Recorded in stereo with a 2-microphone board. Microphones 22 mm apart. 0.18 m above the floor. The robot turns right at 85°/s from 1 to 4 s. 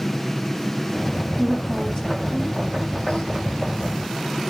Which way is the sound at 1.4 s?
20° right (ahead or behind).